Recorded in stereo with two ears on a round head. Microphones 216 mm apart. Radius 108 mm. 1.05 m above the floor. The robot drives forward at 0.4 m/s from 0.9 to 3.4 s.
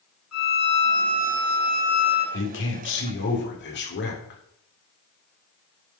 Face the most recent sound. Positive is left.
turn(degrees=50)  # may be behind; listen again after turning